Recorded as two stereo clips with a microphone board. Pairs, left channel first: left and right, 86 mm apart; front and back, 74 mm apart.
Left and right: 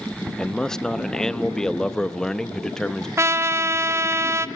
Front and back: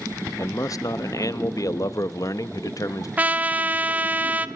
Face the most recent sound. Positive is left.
turn(degrees=-125)